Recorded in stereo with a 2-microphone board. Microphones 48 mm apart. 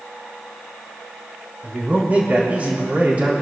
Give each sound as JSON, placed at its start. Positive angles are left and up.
{"t": 1.6, "sound": "a man speaking", "side_deg": -30, "distance_m": 5.5}